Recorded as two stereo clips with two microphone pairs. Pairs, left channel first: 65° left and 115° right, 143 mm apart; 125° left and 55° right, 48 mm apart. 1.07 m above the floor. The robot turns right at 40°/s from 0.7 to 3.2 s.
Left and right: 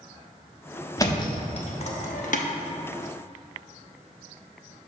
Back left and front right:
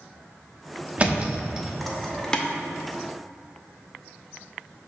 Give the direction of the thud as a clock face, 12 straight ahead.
12 o'clock.